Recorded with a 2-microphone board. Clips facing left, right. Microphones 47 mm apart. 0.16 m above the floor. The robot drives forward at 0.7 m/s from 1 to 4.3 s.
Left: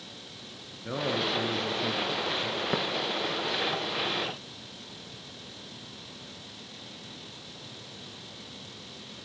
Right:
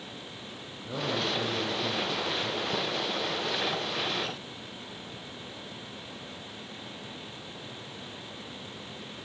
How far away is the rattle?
No rattle in this recording.